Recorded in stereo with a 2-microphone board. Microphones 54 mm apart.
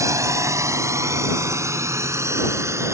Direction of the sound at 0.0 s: 65° right (ahead or behind).